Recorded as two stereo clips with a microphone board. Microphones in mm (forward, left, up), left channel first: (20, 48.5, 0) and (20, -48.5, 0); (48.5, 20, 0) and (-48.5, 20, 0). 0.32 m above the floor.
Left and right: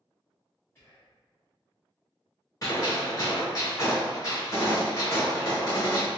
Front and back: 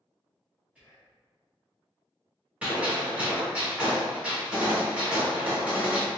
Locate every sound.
0.8 s whispering: 120° left, 1.2 m
2.6 s a gunshot: 110° left, 1.3 m